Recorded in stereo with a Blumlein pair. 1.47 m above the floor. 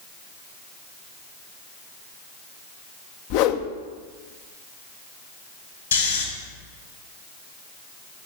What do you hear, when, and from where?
3.3 s a whoosh: 45° left, 0.8 m
5.9 s snoring: 70° left, 3 m